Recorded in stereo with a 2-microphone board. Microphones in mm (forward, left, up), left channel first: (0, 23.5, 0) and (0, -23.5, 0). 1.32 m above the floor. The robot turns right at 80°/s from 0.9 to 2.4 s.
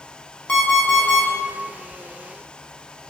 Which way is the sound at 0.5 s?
20° left (ahead or behind).